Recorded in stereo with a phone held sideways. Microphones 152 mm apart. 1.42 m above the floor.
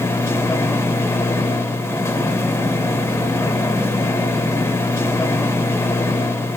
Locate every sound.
0.0 s a machine running: 15° left (ahead or behind), 1.5 m